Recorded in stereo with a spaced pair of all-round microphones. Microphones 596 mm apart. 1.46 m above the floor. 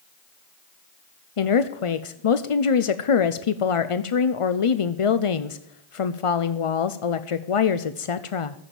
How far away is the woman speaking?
About 0.7 m.